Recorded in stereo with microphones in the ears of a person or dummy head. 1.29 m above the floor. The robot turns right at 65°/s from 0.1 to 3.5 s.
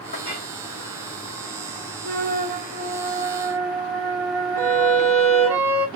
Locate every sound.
0.1 s a clink: 40° left (ahead or behind), 1.4 m; by 0.5 s 15° left (ahead or behind), 1.4 m
2.0 s a flute: 105° right, 0.7 m; by 5.6 s 10° right, 0.7 m
4.6 s a violin: 15° right (ahead or behind), 1.0 m